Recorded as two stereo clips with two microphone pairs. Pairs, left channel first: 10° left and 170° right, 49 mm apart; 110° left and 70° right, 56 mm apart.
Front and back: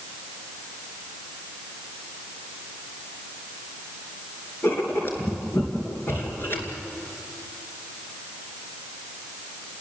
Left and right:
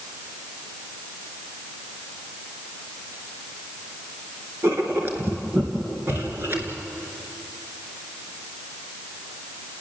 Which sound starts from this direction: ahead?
Writing, at 4.6 s.